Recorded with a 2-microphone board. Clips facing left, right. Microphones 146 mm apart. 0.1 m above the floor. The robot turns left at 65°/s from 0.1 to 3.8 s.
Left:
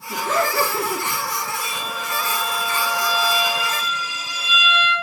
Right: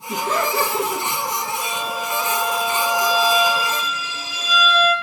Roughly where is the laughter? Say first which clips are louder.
Even; right.